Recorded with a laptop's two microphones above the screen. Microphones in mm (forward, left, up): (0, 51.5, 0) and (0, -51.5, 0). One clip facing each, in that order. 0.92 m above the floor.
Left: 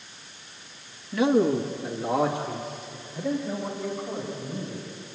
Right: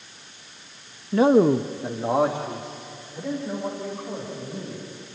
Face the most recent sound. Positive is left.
turn(degrees=-15)  # may be behind; listen again after turning